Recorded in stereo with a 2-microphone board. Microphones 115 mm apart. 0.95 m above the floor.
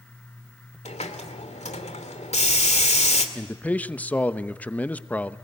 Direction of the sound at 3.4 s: 10° left (ahead or behind).